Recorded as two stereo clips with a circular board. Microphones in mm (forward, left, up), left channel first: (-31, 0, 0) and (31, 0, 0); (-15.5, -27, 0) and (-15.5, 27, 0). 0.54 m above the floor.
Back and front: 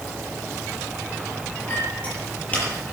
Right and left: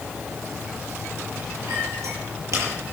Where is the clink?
110° left, 8.5 m.